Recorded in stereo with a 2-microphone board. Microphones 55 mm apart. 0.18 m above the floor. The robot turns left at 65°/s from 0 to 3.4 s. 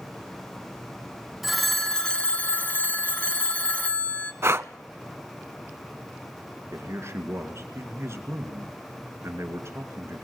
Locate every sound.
1.4 s a phone ringing: 5° right (ahead or behind), 0.7 m; by 4.3 s 25° left (ahead or behind), 0.7 m
4.4 s breathing: 55° right (ahead or behind), 0.5 m
6.7 s a man speaking: 55° right (ahead or behind), 2.5 m